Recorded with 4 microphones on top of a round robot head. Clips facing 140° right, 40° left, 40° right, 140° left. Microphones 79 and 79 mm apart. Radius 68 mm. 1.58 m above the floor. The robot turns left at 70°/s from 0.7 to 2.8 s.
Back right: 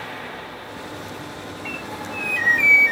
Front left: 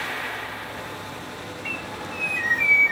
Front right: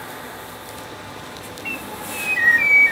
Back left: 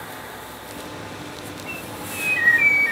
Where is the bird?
55° right, 1.3 m; by 2.9 s 135° right, 1.3 m.